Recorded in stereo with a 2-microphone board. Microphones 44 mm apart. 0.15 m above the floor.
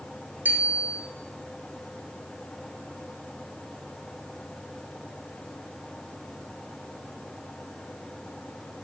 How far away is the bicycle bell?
About 6 m.